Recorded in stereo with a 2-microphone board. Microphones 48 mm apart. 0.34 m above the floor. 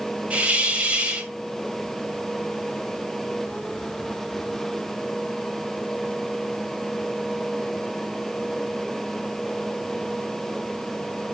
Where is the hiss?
25° right (ahead or behind), 1.5 m.